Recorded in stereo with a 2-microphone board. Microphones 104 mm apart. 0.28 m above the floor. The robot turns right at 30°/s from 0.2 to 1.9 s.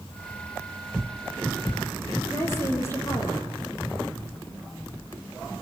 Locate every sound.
2.2 s a woman speaking: 25° left (ahead or behind), 8 m